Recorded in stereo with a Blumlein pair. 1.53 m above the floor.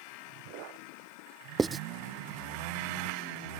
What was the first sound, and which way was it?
Writing, 10° right.